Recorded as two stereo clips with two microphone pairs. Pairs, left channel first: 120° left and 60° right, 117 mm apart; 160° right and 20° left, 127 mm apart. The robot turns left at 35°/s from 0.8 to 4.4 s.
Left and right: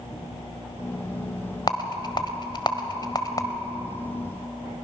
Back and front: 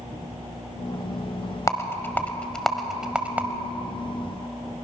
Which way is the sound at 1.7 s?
145° left.